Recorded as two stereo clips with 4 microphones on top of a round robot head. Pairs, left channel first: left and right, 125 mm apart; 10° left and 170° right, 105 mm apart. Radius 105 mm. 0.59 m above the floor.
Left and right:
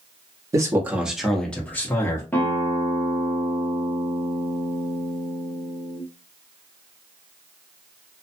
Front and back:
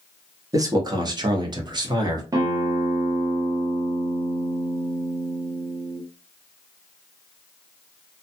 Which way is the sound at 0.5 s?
140° right.